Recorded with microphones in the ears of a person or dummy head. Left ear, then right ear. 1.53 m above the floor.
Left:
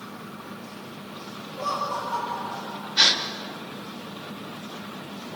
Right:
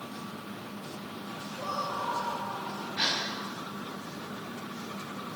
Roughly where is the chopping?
I don't hear chopping.